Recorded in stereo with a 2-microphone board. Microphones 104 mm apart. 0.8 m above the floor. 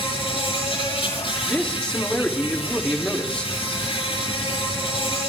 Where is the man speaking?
10° left (ahead or behind), 1.9 m.